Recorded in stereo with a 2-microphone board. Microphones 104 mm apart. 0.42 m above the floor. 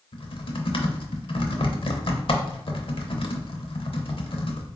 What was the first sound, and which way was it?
Typing on a keyboard, 65° left (ahead or behind).